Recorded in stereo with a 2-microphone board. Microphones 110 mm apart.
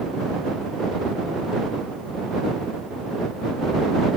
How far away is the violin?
I don't hear a violin.